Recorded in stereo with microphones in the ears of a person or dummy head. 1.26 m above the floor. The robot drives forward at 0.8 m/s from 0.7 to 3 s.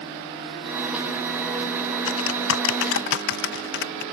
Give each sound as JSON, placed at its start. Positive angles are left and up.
{"t": 2.1, "sound": "typing on a keyboard", "side_deg": 75}